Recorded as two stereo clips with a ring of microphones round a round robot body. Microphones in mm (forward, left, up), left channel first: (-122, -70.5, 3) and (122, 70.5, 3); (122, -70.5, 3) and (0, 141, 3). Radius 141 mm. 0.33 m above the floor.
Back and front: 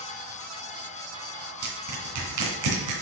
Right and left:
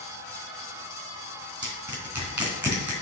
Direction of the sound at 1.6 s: 40° left.